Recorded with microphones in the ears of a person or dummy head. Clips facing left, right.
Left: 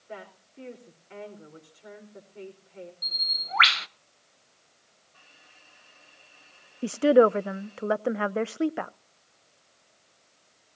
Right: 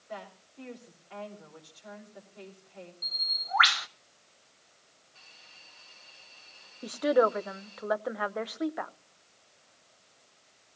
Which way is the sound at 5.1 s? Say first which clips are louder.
Left 2 dB; 60° left (ahead or behind).